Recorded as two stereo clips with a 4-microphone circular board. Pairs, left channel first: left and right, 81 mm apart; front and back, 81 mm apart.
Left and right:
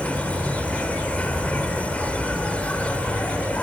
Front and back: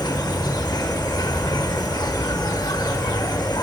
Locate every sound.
0.0 s an insect: 20° left, 0.8 m